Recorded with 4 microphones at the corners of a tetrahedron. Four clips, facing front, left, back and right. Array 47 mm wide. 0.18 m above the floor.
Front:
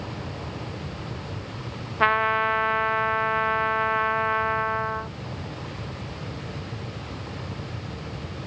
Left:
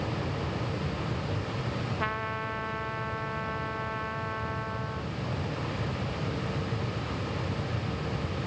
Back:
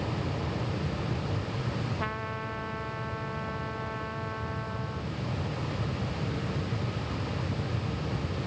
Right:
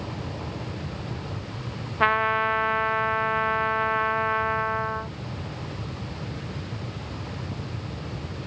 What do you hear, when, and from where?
2.0 s a trumpet: 35° right